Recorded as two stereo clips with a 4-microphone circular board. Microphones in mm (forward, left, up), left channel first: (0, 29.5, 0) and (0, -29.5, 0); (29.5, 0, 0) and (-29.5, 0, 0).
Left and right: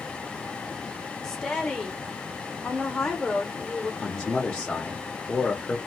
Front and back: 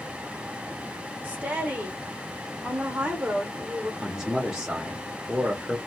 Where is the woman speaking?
160° left, 1.0 m.